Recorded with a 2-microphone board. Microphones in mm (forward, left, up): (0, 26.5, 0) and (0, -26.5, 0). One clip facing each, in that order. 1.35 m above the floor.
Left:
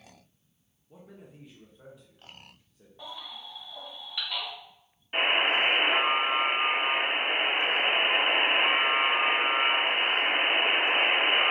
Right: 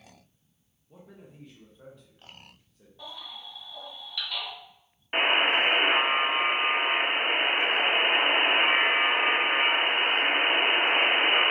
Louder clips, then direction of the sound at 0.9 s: Even; 5° left (ahead or behind).